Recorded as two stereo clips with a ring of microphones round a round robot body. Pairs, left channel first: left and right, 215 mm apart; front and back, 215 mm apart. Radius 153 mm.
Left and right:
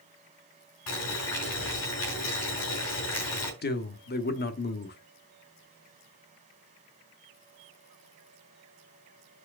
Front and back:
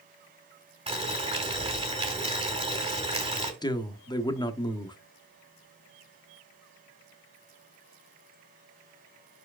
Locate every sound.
0.9 s boiling: 115° left, 3 m
3.6 s a man speaking: 65° left, 1.1 m